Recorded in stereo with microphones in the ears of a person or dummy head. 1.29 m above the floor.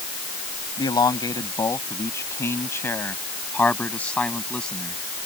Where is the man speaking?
20° left (ahead or behind); by 5.0 s 5° left (ahead or behind).